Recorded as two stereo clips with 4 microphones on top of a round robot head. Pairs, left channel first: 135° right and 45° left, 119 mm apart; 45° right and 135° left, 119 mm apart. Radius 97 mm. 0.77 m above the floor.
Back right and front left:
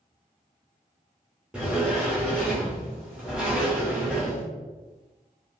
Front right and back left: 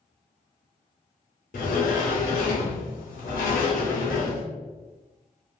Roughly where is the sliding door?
Ahead right.